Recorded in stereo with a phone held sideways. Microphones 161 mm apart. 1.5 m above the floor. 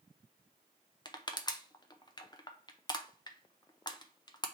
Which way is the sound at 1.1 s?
30° left (ahead or behind).